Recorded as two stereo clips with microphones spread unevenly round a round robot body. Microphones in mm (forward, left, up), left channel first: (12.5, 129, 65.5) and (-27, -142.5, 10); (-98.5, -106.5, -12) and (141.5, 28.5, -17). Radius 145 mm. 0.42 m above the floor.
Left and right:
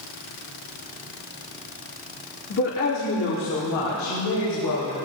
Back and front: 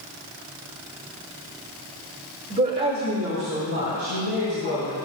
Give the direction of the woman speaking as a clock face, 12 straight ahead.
10 o'clock.